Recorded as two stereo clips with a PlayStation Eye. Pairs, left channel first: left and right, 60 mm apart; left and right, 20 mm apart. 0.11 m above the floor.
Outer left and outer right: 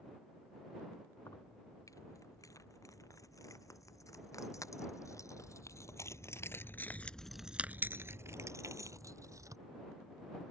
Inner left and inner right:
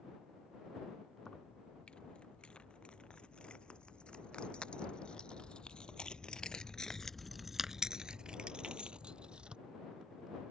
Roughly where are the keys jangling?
Left.